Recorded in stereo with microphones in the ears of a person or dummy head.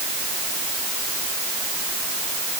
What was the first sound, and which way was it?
Only background noise.